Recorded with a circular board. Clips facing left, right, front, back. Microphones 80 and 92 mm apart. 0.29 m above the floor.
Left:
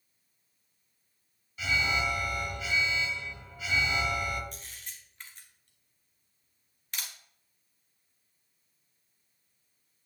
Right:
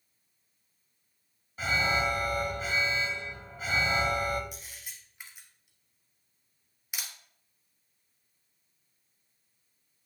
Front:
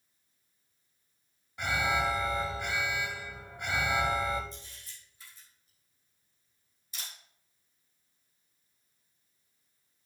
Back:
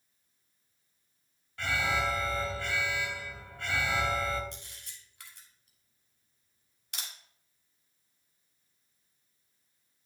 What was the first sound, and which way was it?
An alarm, 65° right.